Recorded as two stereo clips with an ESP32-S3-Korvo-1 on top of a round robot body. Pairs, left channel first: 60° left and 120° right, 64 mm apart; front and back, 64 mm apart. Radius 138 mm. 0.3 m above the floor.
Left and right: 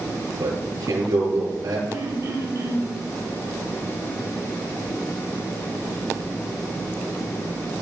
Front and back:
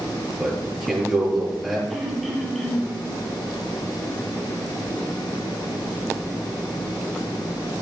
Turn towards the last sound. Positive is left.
turn(degrees=-85)